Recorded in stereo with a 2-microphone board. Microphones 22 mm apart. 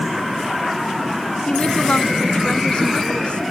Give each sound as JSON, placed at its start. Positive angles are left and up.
{"t": 1.5, "sound": "a woman speaking", "side_deg": 50}